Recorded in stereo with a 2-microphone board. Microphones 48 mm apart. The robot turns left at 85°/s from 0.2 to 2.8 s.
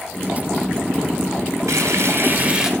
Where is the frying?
80° right, 2 m; by 2.7 s 170° right, 2 m.